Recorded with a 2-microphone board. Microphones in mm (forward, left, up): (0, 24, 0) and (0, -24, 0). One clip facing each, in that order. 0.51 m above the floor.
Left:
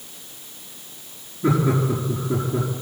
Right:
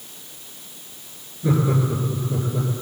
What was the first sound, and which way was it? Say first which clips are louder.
Laughter: left 1 dB; 40° left (ahead or behind).